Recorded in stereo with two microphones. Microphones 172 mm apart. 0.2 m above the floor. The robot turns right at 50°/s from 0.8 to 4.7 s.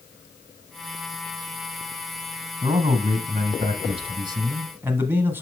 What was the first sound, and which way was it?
A man speaking, 125° right.